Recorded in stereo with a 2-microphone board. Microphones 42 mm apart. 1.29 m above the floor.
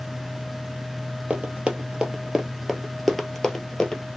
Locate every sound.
1.3 s running footsteps: 35° right (ahead or behind), 1.5 m; by 4.0 s 20° left (ahead or behind), 1.5 m